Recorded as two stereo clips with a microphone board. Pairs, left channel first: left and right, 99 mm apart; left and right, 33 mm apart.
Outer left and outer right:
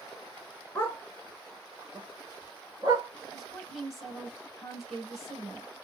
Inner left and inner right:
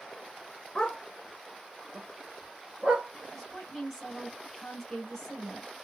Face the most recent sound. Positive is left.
turn(degrees=0)  # may be behind; listen again after turning